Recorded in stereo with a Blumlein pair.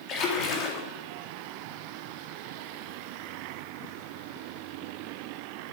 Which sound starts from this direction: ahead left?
A splash, at 0.1 s.